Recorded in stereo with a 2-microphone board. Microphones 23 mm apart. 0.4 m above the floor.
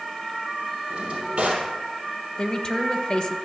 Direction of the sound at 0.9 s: 45° right (ahead or behind).